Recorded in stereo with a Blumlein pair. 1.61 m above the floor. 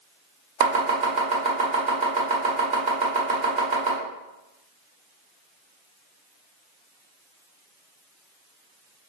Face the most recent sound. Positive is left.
turn(degrees=-50)